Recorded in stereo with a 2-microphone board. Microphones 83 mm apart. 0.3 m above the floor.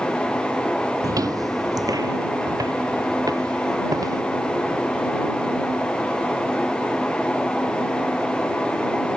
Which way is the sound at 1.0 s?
45° right (ahead or behind).